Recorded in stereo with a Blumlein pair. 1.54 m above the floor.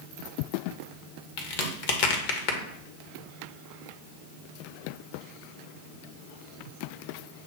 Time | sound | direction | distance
1.4 | a crack | 45° left | 1.5 m